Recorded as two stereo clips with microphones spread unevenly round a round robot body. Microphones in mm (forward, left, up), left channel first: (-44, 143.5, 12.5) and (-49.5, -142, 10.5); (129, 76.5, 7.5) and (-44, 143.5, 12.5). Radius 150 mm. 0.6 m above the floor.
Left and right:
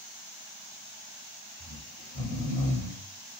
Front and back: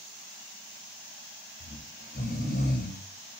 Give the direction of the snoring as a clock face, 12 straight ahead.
12 o'clock.